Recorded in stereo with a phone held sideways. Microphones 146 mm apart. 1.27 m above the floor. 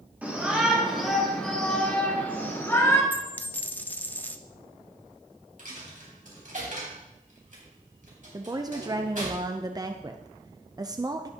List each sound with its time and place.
0.2 s a shout: 10° right (ahead or behind), 4 m; by 3.0 s 20° left (ahead or behind), 4 m
3.1 s a dropped coin: 10° left (ahead or behind), 0.7 m
5.6 s a dropped coin: 60° right (ahead or behind), 3.5 m
8.3 s a woman speaking: 25° right (ahead or behind), 0.6 m